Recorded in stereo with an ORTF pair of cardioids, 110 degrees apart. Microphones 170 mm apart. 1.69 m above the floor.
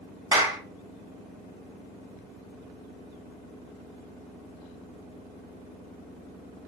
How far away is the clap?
About 1.1 m.